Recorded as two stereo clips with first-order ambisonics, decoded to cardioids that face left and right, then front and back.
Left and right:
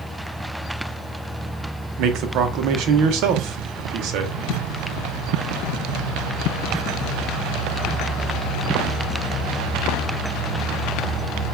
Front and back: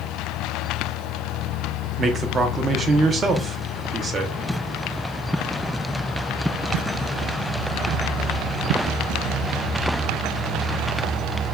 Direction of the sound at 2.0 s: 115° right.